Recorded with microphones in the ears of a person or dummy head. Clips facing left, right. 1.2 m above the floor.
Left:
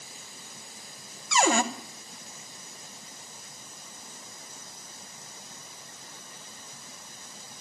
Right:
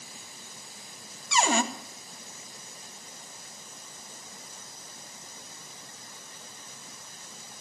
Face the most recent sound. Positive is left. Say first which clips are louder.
# left 2 dB
turn(degrees=45)  # may be behind; listen again after turning